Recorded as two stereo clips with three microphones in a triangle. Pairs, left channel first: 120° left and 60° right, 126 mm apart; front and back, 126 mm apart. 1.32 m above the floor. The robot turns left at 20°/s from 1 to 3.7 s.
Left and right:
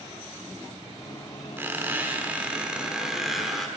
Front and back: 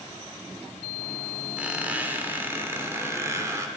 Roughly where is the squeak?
Right.